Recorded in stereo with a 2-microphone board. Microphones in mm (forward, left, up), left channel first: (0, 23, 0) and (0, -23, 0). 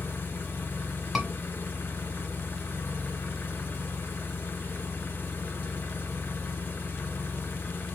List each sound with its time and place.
0.0 s an engine running: 65° left (ahead or behind), 1.5 m
1.1 s a scream: 5° right (ahead or behind), 1.4 m